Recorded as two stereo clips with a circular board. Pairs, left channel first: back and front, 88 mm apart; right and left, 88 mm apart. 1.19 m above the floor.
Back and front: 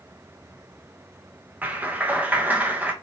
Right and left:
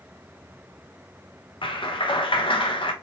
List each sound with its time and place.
1.6 s a clap: 70° right, 0.8 m